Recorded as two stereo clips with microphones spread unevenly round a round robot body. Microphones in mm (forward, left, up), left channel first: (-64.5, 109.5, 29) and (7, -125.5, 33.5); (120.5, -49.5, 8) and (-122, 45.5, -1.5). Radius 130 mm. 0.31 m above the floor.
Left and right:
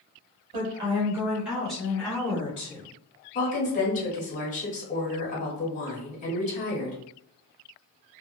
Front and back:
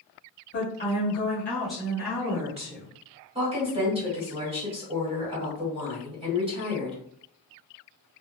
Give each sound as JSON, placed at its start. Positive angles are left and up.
{"t": 0.5, "sound": "a woman speaking", "azimuth_deg": -35, "distance_m": 1.4}
{"t": 3.4, "sound": "a woman speaking", "azimuth_deg": 115, "distance_m": 1.2}